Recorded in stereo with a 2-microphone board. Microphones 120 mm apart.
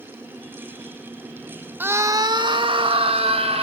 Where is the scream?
15° right (ahead or behind), 1.0 m; by 3.6 s 55° right (ahead or behind), 2 m.